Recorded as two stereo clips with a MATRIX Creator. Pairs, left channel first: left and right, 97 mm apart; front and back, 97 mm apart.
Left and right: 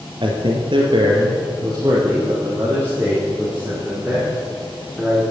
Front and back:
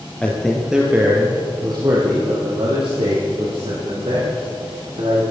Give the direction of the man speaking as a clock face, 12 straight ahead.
3 o'clock.